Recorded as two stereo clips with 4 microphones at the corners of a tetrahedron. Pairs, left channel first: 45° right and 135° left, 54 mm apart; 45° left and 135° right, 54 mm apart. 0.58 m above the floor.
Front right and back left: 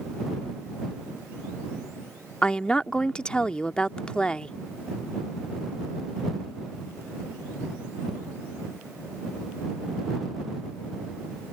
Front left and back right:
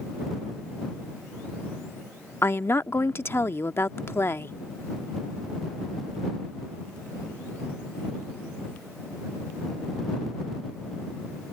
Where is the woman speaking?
20° left.